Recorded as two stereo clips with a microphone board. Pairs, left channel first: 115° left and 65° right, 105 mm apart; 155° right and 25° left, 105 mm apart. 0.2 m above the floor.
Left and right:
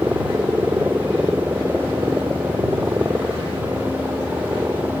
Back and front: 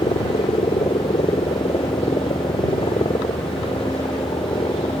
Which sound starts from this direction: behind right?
A helicopter, at 0.0 s.